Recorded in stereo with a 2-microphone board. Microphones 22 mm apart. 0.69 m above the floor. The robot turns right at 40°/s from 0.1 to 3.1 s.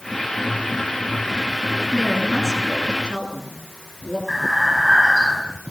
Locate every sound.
1.8 s a woman speaking: 5° right, 8 m; by 4.2 s 45° left, 8 m
4.3 s breathing: 5° right (ahead or behind), 5.5 m